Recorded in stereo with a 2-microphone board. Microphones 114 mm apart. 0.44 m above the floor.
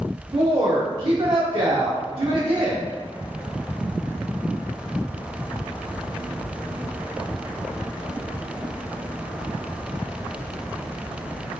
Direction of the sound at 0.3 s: 50° right (ahead or behind).